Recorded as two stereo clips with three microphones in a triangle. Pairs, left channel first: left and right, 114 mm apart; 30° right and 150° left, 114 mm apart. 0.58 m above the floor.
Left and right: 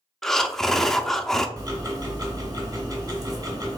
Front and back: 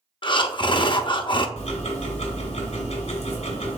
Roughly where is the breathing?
Ahead.